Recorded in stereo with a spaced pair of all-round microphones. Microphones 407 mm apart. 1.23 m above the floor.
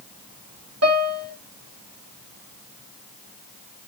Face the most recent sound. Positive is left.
turn(degrees=-40)  # may be behind; listen again after turning